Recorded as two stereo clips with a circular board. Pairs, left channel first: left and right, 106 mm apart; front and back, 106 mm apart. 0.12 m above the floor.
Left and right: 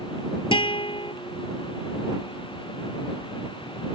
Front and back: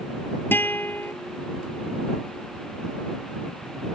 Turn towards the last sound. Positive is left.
turn(degrees=70)